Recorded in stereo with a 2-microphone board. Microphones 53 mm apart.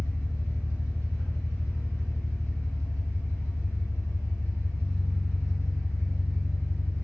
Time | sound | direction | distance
0.0 | an engine running | 75° left (ahead or behind) | 1.5 m